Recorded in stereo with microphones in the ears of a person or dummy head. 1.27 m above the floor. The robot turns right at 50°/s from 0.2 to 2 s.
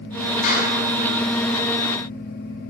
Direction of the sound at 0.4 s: 55° left (ahead or behind).